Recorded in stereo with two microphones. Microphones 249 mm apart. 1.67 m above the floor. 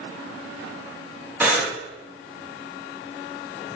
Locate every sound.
1.4 s breathing: 5° right (ahead or behind), 3 m